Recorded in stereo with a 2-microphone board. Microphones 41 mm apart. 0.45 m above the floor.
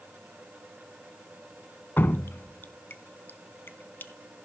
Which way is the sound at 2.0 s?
60° left (ahead or behind).